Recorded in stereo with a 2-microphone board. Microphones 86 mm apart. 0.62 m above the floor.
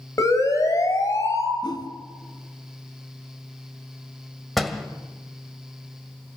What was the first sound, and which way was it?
A siren, 35° left (ahead or behind).